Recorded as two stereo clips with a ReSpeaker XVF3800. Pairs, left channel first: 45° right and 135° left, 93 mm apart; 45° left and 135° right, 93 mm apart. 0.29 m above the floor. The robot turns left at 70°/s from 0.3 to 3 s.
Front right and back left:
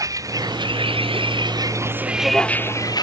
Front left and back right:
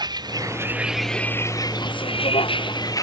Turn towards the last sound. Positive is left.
turn(degrees=-5)